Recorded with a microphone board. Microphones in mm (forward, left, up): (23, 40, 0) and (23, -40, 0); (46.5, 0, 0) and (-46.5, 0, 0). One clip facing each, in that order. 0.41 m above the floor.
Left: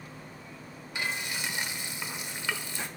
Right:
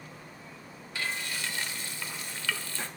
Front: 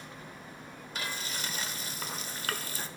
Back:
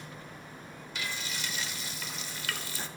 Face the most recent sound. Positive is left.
turn(degrees=25)